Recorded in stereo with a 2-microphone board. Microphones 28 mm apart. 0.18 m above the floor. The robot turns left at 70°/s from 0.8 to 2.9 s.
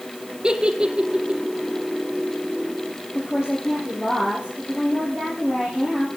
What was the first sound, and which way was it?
A giggle, 35° right (ahead or behind).